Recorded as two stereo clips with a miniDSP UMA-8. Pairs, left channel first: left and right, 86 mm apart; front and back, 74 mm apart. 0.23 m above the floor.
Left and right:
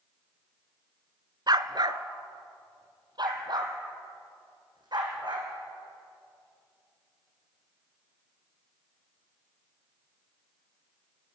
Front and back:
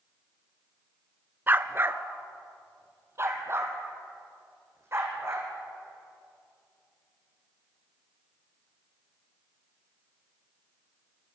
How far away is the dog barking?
About 0.9 m.